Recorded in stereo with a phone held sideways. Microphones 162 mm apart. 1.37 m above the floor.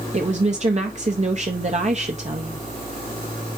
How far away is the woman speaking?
About 0.7 m.